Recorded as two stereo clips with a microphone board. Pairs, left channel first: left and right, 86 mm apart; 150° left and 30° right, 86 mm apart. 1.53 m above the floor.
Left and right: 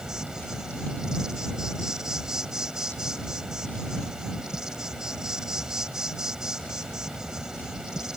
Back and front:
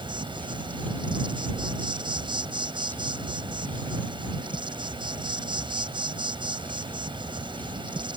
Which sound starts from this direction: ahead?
An insect, at 0.0 s.